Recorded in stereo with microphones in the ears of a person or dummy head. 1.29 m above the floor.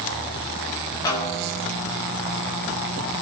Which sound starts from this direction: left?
A snare drum, at 1.1 s.